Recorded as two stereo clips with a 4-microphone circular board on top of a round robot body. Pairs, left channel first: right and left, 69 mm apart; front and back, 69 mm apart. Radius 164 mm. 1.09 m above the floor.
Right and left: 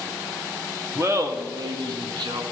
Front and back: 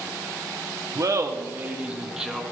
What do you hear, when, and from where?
0.9 s laughter: 145° left, 0.9 m; by 2.4 s 95° left, 1.4 m